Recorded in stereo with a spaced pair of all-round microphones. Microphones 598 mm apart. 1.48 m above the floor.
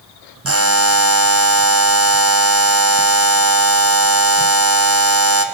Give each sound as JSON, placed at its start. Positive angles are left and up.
{"t": 0.5, "sound": "a buzzer", "side_deg": -25, "distance_m": 1.1}